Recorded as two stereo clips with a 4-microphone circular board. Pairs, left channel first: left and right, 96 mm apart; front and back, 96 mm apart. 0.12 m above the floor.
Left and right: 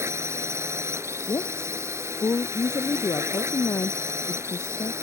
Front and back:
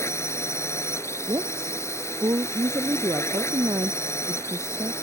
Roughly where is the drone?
Ahead right.